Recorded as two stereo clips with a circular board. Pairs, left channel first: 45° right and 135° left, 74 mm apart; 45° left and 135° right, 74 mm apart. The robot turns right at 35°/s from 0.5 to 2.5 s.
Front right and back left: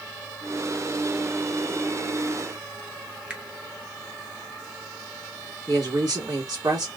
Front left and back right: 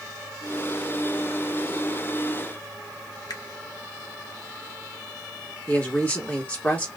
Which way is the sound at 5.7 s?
110° left.